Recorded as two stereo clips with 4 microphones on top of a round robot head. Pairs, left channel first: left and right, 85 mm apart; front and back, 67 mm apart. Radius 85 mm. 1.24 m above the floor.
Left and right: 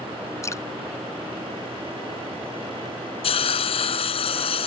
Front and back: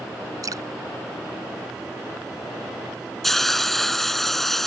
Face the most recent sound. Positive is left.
turn(degrees=85)